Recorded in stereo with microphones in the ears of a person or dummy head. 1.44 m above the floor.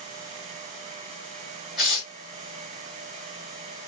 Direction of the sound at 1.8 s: Centre (ahead or behind).